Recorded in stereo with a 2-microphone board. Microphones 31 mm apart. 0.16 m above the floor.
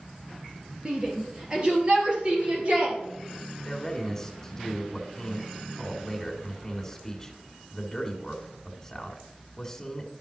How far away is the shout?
About 3.5 m.